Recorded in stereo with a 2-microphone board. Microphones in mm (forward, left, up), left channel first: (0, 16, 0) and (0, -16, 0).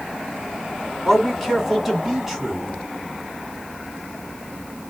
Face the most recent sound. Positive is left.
turn(degrees=-5)  # may be behind; listen again after turning